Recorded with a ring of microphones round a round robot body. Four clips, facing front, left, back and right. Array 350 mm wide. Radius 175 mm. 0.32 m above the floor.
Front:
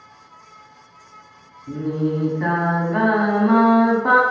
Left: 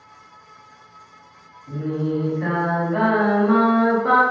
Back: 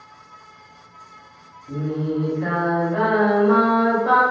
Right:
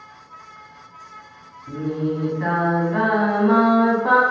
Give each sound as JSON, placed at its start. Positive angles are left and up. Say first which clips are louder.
{"t": 1.7, "sound": "singing", "louder": "even, front 2 dB", "azimuth_deg": -15, "distance_m": 1.1}